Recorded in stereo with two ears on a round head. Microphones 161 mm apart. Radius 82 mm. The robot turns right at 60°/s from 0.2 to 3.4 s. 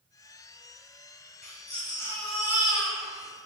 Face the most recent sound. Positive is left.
turn(degrees=-115)